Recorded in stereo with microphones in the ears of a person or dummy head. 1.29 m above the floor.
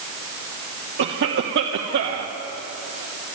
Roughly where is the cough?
Right.